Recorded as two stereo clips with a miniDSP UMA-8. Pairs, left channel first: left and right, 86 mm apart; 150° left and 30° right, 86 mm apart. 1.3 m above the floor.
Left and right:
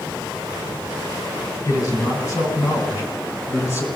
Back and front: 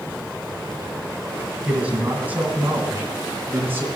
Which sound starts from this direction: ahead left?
A man speaking, at 1.6 s.